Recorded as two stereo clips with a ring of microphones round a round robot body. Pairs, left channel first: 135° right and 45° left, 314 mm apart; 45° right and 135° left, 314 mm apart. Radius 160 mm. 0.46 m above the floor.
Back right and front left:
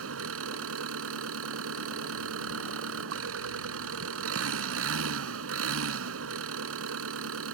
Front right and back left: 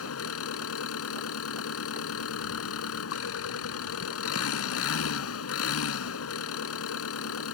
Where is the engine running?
Straight ahead.